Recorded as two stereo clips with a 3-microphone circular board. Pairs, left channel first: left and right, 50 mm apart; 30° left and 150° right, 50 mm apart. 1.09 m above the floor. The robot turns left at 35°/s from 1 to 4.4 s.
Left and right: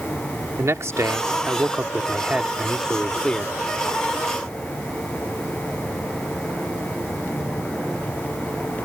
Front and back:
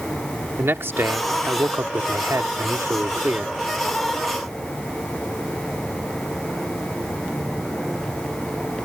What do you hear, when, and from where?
0.6 s a man speaking: 110° right; by 3.5 s 160° left